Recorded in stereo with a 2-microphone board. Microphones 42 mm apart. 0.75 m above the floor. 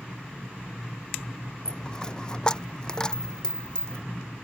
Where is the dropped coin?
20° left (ahead or behind).